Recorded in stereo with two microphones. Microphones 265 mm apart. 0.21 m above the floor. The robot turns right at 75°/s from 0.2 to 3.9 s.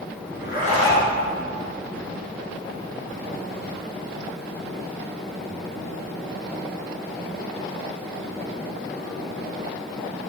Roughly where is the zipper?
Behind left.